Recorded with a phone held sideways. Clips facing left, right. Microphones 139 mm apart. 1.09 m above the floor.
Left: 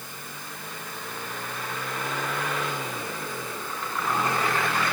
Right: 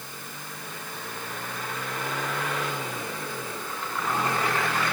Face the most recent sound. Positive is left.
No sound to turn to.